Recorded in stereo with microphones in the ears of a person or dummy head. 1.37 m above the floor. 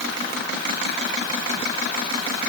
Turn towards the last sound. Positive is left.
No sound to turn to.